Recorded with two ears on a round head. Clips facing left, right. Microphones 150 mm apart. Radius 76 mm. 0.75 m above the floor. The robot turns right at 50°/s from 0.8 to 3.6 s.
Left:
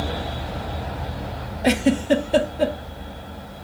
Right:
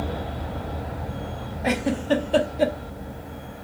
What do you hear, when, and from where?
1.6 s a giggle: 40° left (ahead or behind), 0.7 m; by 2.8 s 10° right (ahead or behind), 0.7 m